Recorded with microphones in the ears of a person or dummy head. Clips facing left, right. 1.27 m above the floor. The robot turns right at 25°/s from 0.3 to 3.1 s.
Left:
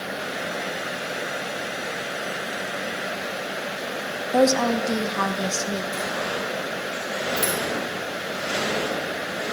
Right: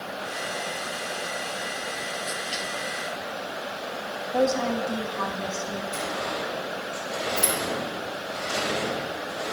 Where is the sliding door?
25° left (ahead or behind), 1.4 m.